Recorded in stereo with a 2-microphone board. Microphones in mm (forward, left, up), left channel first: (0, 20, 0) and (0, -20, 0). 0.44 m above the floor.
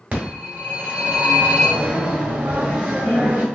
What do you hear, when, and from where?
0.1 s a phone ringing: 40° right (ahead or behind), 2.0 m